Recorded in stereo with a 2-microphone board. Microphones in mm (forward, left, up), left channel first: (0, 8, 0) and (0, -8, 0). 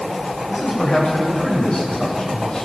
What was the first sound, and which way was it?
A man speaking, 60° left (ahead or behind).